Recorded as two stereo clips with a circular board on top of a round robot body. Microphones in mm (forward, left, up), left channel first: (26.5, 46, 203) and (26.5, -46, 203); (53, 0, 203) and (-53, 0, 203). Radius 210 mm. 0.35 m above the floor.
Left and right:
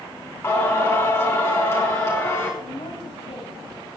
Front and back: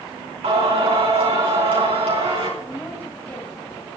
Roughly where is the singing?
Behind left.